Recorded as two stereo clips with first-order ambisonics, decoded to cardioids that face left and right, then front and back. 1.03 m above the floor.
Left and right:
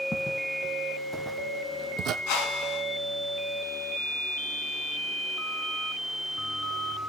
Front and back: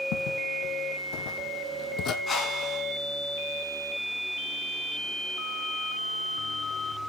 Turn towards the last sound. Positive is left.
turn(degrees=70)